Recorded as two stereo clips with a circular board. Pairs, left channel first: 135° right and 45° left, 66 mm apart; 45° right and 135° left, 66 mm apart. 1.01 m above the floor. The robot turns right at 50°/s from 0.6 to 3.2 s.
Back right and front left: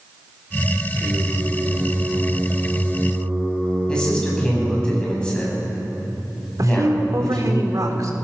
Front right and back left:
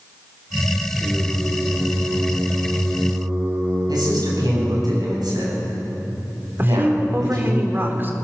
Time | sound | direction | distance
0.9 | singing | 50° left | 10 m
3.9 | a man speaking | 145° left | 8.5 m
6.6 | a woman speaking | 80° left | 3.5 m